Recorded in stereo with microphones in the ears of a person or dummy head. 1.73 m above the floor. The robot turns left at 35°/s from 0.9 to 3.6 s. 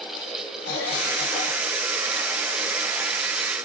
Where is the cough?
60° left (ahead or behind), 1.3 m; by 1.7 s 35° left (ahead or behind), 1.3 m.